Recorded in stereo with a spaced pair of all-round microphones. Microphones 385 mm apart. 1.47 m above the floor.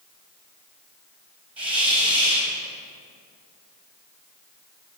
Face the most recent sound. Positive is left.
turn(degrees=-5)  # may be behind; listen again after turning